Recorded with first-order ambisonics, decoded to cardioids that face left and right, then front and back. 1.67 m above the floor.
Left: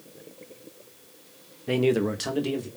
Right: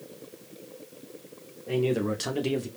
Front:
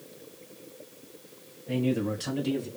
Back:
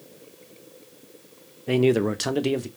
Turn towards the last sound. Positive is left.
turn(degrees=-165)